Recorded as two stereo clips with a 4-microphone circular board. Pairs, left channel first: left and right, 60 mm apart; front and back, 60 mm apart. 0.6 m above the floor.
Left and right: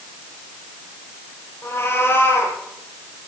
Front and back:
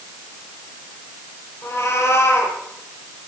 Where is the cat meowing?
45° left, 8 m.